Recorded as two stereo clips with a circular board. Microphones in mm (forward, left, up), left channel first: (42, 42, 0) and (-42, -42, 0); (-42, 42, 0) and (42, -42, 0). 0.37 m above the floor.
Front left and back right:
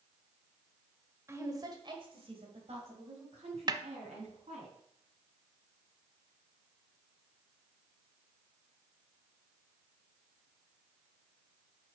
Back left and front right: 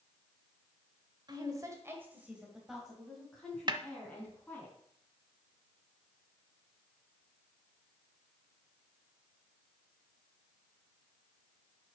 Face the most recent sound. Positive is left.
turn(degrees=-90)